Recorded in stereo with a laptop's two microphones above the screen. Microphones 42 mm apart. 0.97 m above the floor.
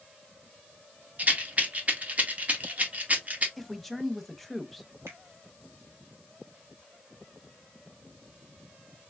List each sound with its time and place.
1.2 s a rattle: 40° right (ahead or behind), 1.1 m
3.6 s a man speaking: centre (ahead or behind), 0.9 m
5.1 s a finger snap: 90° right, 2.5 m